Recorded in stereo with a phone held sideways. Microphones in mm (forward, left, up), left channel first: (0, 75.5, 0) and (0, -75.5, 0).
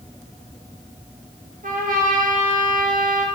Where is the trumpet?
60° right (ahead or behind), 0.7 m.